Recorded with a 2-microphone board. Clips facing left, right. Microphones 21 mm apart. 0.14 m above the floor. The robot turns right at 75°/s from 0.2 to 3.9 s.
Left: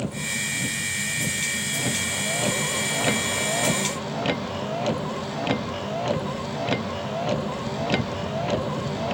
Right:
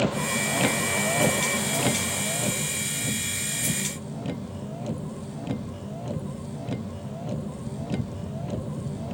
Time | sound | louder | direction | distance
0.0 | a vehicle | right 3 dB | 145° right | ?